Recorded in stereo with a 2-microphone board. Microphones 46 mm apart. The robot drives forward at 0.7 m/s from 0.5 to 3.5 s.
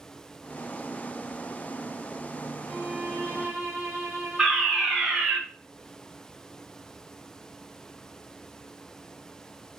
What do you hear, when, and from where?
2.7 s a violin: 35° right (ahead or behind), 4.5 m; by 5.4 s 30° right (ahead or behind), 5 m
4.4 s a fire alarm: centre (ahead or behind), 7 m